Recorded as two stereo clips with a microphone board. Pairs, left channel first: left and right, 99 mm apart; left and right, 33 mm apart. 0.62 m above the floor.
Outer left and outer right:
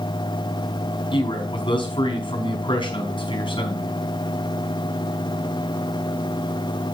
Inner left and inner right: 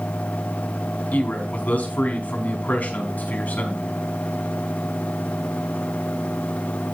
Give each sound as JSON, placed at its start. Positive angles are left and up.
{"t": 1.1, "sound": "a man speaking", "side_deg": 55, "distance_m": 5.0}